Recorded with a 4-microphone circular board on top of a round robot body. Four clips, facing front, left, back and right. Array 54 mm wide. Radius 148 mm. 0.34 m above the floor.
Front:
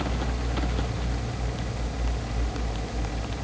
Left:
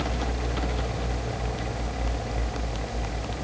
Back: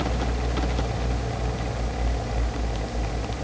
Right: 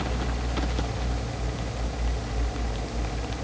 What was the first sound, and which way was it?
Only background noise.